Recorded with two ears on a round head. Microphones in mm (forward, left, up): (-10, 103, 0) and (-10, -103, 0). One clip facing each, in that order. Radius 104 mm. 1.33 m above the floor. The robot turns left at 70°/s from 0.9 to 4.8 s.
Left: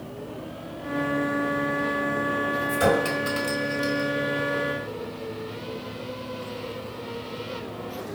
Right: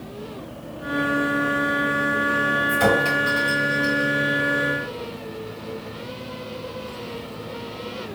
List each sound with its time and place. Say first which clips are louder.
2.7 s a clink: right 1 dB; 5° right (ahead or behind), 4 m; by 4.1 s 80° left, 4 m